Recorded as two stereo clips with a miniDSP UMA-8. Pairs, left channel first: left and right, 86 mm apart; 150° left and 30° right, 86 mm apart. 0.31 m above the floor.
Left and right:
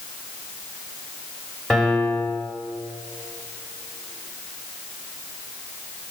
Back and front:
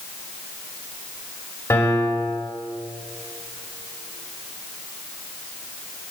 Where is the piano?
170° left, 1.7 m.